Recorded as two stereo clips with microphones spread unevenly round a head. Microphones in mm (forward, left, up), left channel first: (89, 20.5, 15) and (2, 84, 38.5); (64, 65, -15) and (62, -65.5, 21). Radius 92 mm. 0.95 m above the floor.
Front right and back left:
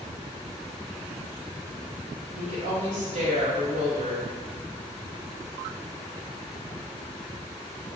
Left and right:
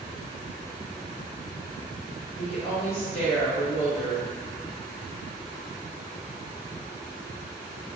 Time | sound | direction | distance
2.4 | a woman speaking | 130° left | 0.9 m